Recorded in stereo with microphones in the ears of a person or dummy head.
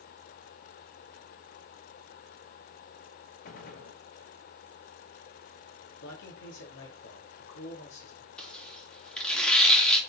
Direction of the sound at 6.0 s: 70° left (ahead or behind).